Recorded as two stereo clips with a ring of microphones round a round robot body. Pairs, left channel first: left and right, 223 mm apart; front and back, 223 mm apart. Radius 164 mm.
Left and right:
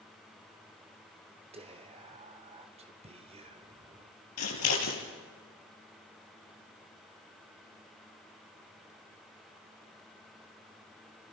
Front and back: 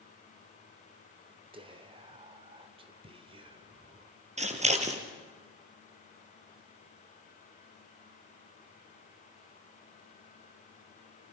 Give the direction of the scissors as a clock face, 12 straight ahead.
8 o'clock.